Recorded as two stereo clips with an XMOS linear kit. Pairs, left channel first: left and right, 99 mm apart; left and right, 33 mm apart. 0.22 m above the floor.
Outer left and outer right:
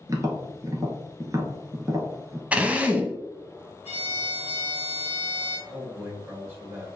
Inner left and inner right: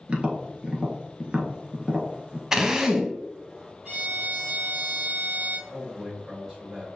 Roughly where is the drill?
Centre.